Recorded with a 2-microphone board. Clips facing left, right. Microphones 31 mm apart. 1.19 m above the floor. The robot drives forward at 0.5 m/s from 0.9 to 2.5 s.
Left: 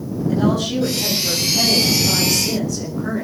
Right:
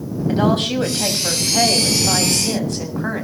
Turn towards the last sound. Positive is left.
turn(degrees=-60)  # may be behind; listen again after turning